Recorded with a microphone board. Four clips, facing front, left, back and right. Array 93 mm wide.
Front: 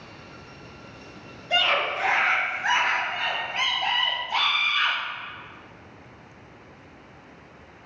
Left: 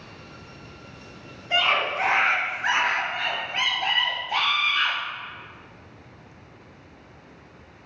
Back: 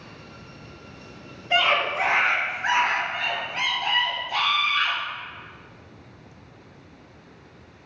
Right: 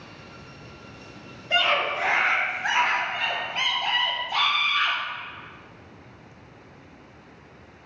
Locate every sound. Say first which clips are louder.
1.5 s a scream: even, back 2 dB; 165° left, 2 m; by 5.0 s 95° left, 6 m